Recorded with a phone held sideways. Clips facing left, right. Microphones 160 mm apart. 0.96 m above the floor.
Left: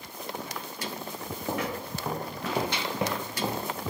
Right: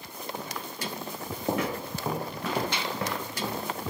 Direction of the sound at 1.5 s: 20° right (ahead or behind).